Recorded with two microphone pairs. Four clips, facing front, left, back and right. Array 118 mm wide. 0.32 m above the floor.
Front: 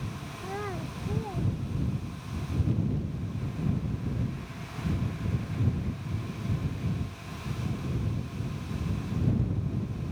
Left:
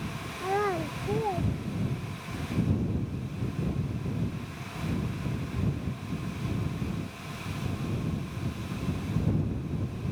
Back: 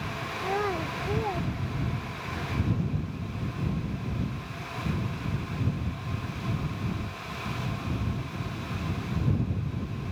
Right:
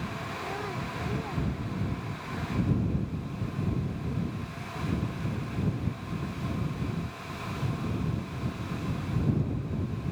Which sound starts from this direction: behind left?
A child speaking, at 0.4 s.